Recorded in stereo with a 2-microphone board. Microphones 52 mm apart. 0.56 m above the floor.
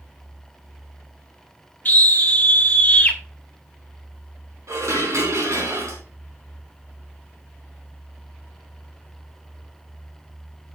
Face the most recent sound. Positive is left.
turn(degrees=-80)